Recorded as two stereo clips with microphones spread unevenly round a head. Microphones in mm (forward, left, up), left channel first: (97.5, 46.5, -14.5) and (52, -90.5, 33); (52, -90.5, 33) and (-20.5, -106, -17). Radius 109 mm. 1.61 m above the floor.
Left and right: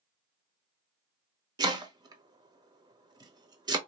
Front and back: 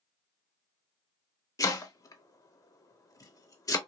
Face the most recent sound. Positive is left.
turn(degrees=-40)